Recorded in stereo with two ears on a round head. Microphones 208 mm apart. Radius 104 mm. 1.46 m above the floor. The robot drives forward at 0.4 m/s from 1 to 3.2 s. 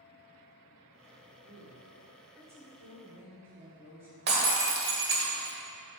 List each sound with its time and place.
1.4 s a woman speaking: 15° right (ahead or behind), 2.5 m; by 4.2 s 10° right (ahead or behind), 3.5 m
4.3 s breaking glass: 45° right (ahead or behind), 1.5 m